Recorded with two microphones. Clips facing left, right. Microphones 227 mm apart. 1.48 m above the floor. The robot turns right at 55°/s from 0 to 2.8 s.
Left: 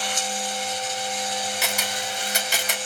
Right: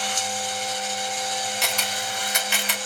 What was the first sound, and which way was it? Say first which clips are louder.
A camera shutter: left 1 dB; 5° left (ahead or behind).